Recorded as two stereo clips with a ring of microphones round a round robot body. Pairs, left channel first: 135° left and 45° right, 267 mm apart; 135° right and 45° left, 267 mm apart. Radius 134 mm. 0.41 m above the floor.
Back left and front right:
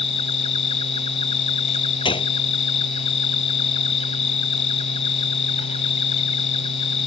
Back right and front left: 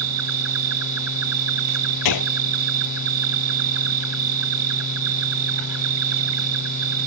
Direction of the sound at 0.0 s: 70° left.